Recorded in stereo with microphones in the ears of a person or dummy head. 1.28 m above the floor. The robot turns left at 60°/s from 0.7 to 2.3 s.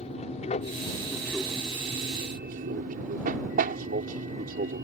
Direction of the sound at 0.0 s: 35° left.